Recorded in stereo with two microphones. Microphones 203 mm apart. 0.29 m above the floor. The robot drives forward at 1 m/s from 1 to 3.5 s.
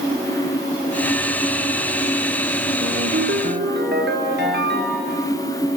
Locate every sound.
2.8 s a ringtone: 75° right (ahead or behind), 2 m; by 5.2 s 60° right (ahead or behind), 2.5 m